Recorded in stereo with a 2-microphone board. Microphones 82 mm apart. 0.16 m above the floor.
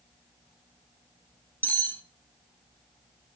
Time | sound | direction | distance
1.6 | cutlery clinking | 20° left (ahead or behind) | 0.7 m